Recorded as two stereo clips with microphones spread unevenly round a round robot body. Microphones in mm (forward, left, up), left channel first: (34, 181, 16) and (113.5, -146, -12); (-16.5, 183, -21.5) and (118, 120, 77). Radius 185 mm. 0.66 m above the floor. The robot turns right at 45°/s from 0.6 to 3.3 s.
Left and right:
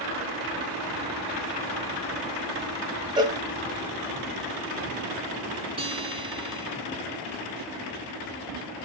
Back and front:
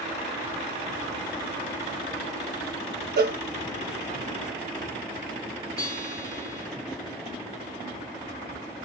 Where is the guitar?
150° right, 1.0 m.